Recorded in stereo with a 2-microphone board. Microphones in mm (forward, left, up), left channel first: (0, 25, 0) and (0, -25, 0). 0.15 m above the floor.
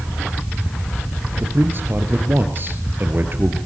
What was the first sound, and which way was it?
A man speaking, 45° right (ahead or behind).